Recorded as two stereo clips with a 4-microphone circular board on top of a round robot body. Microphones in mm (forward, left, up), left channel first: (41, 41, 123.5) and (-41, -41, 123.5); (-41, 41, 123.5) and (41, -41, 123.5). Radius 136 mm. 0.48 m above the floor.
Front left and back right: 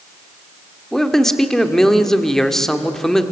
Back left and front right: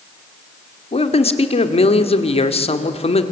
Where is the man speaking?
130° left, 1.9 m.